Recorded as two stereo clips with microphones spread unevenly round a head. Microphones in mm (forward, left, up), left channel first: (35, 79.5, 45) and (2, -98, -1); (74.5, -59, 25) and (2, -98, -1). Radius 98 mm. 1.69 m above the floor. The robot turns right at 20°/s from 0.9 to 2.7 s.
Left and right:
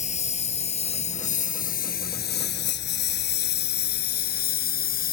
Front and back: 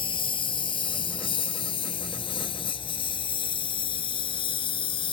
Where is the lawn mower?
30° left; by 5.1 s 45° left.